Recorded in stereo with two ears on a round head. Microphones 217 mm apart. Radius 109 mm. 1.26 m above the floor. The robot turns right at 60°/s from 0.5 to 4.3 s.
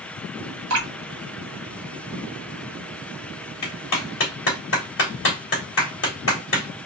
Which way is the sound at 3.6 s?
85° left.